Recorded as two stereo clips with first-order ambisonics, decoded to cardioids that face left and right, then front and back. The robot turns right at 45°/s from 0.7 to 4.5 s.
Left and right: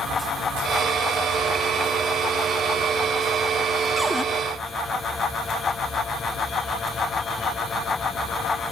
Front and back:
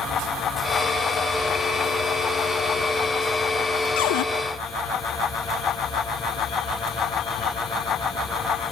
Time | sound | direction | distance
4.0 | a cupboard door | 5° right | 0.6 m